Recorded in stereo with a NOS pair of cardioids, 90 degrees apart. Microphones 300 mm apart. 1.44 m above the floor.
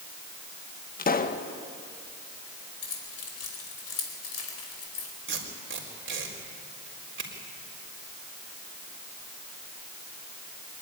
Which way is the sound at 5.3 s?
35° right.